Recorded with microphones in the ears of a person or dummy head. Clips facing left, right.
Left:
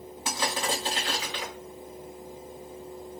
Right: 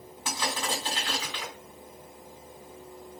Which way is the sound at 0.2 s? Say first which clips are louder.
Left 2 dB; 20° left (ahead or behind).